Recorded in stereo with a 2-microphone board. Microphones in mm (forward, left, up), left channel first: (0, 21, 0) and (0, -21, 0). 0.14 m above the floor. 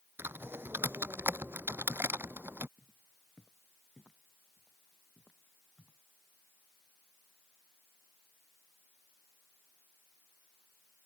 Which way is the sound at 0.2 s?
55° right (ahead or behind).